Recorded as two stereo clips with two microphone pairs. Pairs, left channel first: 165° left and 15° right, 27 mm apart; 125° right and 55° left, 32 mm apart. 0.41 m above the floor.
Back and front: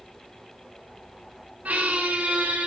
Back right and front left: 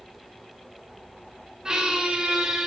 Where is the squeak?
20° right, 0.9 m.